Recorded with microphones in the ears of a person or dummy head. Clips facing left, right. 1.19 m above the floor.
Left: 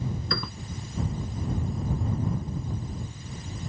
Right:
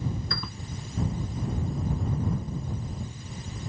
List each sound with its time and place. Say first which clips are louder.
0.3 s a piano: left 4 dB; 60° left (ahead or behind)